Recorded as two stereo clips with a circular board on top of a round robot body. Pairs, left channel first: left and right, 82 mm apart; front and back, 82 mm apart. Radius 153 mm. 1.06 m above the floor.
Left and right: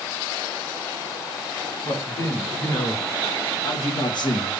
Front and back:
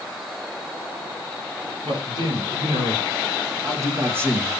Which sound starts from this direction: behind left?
A man speaking, at 1.8 s.